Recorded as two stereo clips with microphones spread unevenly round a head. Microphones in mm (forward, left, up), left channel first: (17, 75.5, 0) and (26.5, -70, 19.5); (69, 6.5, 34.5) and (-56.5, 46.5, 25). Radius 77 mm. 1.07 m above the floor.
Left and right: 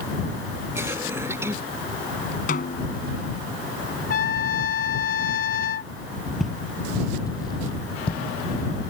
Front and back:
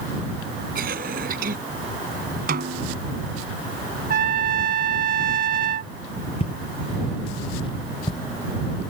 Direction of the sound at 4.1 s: 135° left.